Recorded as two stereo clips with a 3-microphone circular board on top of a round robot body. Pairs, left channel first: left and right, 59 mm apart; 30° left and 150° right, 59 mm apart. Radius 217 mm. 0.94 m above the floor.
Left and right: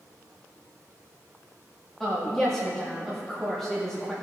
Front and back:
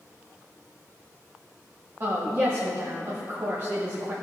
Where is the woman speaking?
170° left, 1.7 m.